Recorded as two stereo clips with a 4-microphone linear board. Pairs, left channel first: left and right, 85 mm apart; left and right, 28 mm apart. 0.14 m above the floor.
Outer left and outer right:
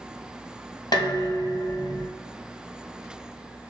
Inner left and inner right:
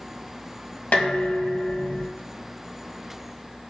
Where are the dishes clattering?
60° left (ahead or behind), 1.7 m.